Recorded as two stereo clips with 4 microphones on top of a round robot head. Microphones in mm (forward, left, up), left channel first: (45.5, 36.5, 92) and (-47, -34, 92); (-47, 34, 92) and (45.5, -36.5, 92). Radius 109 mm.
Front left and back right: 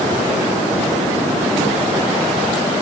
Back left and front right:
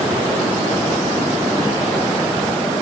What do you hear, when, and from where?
Only background noise.